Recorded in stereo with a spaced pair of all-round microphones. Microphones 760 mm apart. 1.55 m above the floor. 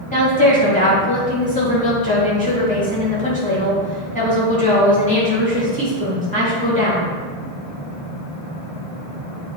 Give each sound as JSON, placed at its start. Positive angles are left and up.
{"t": 0.1, "sound": "a woman speaking", "side_deg": 10, "distance_m": 2.5}